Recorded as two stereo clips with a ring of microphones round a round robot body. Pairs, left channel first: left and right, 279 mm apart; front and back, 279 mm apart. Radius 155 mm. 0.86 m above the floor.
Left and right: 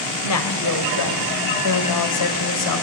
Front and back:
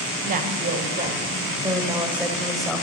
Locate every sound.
0.2 s a woman speaking: 115° left, 4.5 m; by 2.8 s 85° left, 5 m